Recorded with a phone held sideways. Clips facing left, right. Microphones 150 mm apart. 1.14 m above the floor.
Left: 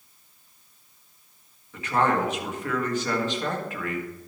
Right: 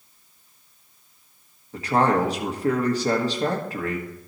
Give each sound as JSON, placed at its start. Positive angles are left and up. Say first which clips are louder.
{"t": 1.7, "sound": "a man speaking", "louder": "right 3 dB", "side_deg": -35, "distance_m": 1.5}